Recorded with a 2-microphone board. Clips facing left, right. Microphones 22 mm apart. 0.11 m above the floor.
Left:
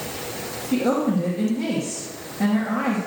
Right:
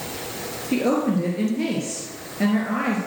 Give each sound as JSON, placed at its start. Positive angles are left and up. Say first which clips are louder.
{"t": 0.7, "sound": "a woman speaking", "louder": "even", "side_deg": -35, "distance_m": 1.6}